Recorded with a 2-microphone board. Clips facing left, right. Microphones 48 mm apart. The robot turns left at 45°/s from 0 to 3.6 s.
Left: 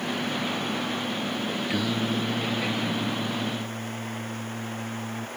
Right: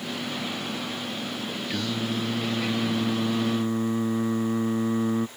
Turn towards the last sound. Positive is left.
turn(degrees=-75)